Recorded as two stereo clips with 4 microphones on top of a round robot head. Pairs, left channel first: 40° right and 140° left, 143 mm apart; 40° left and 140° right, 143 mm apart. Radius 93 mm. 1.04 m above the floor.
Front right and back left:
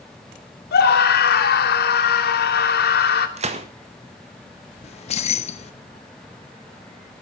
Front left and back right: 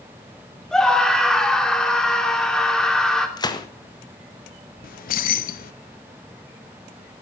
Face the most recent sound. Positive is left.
turn(degrees=10)